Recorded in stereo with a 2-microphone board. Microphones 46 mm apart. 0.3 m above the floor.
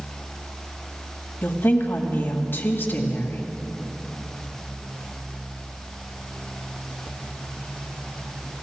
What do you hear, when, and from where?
1.4 s a woman speaking: 50° left (ahead or behind), 1.8 m